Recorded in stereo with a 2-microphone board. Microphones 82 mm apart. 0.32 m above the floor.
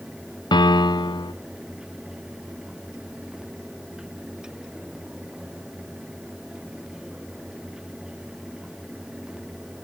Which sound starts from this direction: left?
A piano, at 0.5 s.